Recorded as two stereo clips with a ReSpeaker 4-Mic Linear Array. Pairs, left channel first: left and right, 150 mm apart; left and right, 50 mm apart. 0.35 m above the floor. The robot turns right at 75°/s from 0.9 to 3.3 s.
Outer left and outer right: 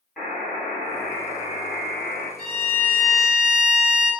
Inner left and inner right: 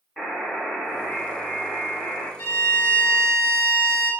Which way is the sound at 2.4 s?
100° left.